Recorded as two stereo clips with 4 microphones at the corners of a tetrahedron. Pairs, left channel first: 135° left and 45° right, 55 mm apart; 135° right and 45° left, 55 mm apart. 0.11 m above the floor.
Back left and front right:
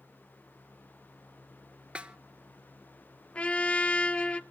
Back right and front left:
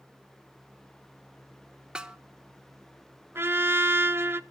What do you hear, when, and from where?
1.9 s a snare drum: 10° right, 0.7 m
3.4 s a trumpet: 75° left, 0.5 m